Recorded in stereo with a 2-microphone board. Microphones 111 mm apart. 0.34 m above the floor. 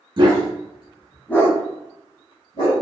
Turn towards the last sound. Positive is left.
turn(degrees=55)  # may be behind; listen again after turning